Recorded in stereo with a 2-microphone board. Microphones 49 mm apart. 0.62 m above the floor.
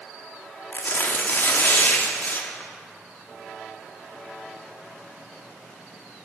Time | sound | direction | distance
0.7 | tearing paper | 45° left (ahead or behind) | 1.1 m